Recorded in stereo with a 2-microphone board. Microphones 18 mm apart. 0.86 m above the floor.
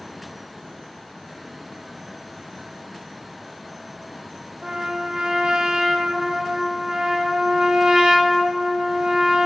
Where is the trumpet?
45° right (ahead or behind), 0.9 m.